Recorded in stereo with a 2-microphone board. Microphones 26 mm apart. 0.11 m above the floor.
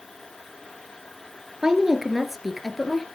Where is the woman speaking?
25° right (ahead or behind), 2 m; by 3.0 s 15° left (ahead or behind), 2.5 m.